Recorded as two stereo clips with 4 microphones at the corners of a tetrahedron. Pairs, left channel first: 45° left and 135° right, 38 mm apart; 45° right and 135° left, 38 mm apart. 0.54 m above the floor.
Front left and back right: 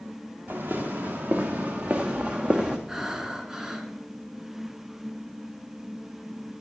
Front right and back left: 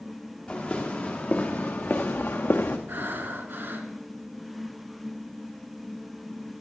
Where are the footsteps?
110° right, 3.5 m; by 2.8 s 65° right, 1.7 m.